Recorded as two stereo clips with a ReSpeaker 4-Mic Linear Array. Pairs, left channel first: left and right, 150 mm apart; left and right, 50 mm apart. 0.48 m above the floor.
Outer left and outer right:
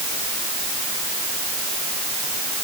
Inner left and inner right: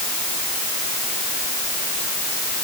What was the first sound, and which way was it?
Only background noise.